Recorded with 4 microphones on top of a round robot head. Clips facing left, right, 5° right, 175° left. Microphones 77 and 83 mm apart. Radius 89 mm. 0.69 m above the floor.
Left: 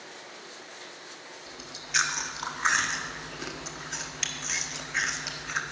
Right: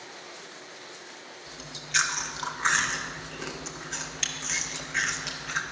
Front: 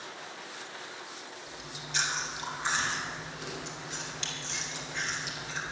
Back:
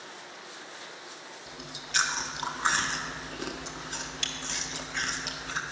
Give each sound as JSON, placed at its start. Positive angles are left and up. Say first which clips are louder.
{"t": 1.5, "sound": "chewing", "louder": "even, back 1 dB", "azimuth_deg": 175, "distance_m": 1.8}